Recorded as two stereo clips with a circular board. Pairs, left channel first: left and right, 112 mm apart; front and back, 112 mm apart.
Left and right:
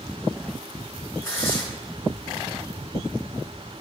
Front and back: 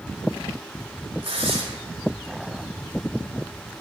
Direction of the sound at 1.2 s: 155° left.